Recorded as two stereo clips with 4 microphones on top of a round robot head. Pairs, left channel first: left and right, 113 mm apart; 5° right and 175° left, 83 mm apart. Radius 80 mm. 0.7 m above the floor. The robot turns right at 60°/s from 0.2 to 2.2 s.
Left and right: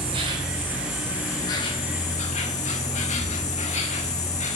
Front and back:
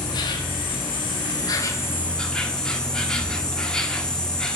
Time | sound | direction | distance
0.0 | an insect | 45° right | 1.3 m